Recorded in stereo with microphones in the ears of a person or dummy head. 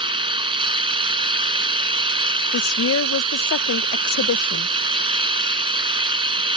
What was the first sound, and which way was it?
An engine running, 30° right (ahead or behind).